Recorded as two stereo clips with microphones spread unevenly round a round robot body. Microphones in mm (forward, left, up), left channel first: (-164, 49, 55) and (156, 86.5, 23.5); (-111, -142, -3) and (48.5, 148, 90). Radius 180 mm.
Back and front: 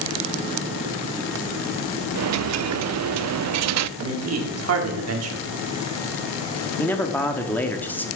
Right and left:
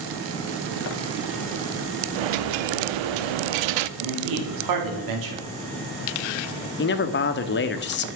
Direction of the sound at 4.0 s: 30° left.